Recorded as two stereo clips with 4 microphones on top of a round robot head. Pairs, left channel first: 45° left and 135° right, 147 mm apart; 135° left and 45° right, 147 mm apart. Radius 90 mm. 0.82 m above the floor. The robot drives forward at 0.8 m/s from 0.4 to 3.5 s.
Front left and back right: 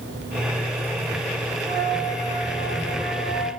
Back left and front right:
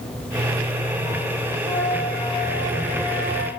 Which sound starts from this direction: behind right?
A flute, at 1.6 s.